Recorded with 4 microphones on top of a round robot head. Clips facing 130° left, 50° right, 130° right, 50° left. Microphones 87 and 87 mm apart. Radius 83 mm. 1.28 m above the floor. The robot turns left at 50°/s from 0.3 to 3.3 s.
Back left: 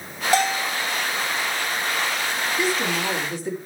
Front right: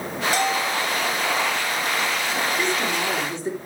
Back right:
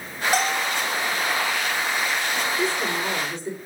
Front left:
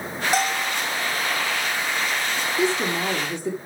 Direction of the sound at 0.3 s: 140° left.